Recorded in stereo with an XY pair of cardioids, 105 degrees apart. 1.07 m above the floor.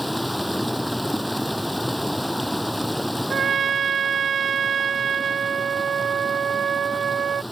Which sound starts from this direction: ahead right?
A trumpet, at 3.3 s.